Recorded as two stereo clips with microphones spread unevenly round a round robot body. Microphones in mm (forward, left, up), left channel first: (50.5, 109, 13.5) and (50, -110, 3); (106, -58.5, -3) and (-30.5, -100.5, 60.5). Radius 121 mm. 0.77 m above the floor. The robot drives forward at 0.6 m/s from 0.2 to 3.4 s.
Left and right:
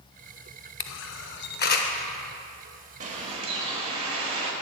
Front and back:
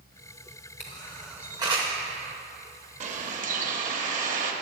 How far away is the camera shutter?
About 0.5 m.